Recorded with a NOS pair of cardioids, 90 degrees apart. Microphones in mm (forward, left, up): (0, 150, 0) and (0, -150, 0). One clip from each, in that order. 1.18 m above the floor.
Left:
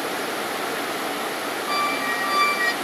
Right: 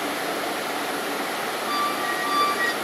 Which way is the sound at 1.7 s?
25° left.